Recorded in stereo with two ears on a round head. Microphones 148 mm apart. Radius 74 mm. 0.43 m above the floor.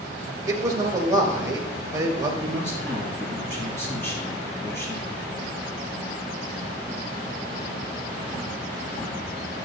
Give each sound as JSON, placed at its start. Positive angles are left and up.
{"t": 0.5, "sound": "a man speaking", "side_deg": -20, "distance_m": 1.9}
{"t": 2.4, "sound": "a man speaking", "side_deg": 15, "distance_m": 4.5}